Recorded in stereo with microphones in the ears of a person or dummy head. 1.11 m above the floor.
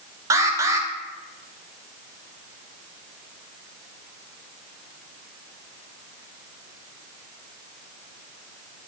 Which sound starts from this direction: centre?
An alarm, at 0.3 s.